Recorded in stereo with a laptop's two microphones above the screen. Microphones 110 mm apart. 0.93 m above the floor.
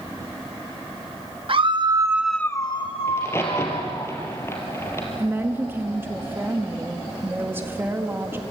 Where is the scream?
55° right (ahead or behind), 1.1 m; by 4.1 s 80° left, 2 m.